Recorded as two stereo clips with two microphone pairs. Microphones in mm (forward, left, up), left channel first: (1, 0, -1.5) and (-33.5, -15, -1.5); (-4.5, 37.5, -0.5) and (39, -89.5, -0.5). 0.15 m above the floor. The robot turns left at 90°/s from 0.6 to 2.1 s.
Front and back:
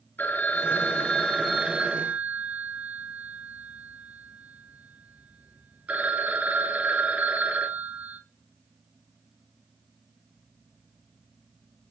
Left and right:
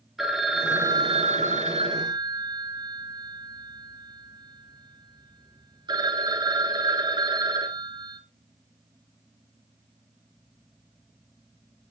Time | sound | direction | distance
0.2 | a phone ringing | 15° left | 1.1 m